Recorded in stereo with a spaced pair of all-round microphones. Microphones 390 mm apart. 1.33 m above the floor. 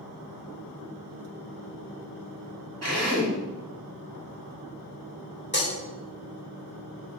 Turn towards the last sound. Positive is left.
turn(degrees=30)  # may be behind; listen again after turning